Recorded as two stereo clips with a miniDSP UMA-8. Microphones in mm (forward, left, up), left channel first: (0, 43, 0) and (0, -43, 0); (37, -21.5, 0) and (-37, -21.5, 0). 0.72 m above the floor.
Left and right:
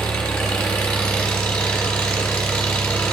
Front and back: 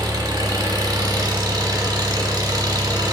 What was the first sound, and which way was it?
An engine running, 170° left.